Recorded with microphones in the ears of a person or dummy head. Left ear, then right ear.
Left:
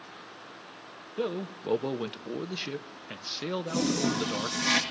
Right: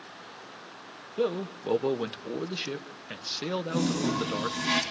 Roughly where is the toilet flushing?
Left.